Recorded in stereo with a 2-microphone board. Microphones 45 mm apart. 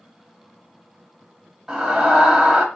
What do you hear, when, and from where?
1.7 s a scream: 5° right (ahead or behind), 1.0 m